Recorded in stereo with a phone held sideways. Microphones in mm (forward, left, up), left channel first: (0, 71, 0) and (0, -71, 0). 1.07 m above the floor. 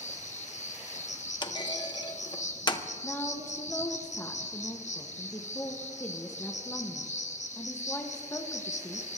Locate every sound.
0.0 s an insect: 55° left (ahead or behind), 0.9 m
1.4 s a clunk: 35° left (ahead or behind), 0.7 m
3.0 s a woman speaking: 15° left (ahead or behind), 0.9 m